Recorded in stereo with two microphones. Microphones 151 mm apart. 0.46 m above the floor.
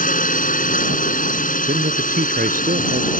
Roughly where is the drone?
Left.